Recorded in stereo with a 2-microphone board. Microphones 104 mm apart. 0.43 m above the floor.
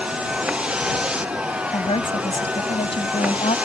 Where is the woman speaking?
70° left (ahead or behind).